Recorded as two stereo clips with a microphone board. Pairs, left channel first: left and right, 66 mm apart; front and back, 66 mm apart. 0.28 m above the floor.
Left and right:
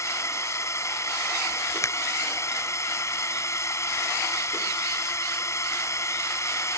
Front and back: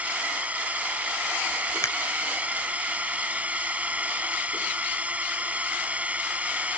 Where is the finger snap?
45° left.